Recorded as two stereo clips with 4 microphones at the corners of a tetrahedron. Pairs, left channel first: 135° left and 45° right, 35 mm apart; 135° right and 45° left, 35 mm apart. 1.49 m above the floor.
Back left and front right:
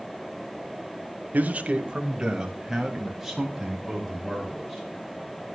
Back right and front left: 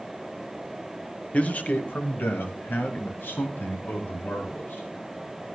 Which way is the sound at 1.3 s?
85° right.